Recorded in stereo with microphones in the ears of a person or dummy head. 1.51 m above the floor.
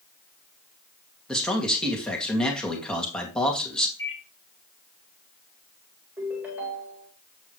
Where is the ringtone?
5° right (ahead or behind), 4.5 m.